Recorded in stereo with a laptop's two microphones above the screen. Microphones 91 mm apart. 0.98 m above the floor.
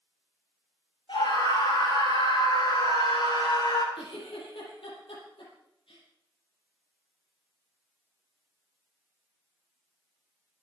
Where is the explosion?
I don't hear an explosion.